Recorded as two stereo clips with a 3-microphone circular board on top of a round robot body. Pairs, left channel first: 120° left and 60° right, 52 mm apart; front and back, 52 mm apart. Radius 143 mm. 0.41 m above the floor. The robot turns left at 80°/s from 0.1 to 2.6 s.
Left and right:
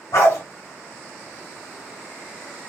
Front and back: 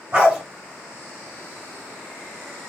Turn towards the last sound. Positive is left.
turn(degrees=-85)